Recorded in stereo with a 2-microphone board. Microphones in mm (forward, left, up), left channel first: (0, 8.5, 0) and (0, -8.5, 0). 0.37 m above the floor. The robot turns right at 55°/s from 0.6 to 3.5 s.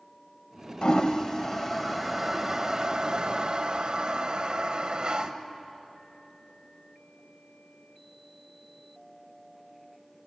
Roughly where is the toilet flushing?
Left.